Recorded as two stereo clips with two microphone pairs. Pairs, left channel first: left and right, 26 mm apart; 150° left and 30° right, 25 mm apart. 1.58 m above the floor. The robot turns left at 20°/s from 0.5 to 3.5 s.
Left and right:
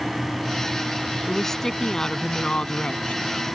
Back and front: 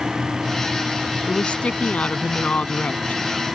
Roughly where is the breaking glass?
No breaking glass in this recording.